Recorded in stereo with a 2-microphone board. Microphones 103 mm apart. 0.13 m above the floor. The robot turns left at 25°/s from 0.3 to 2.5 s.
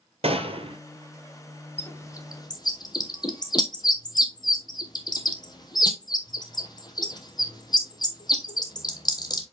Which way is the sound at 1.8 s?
20° left (ahead or behind).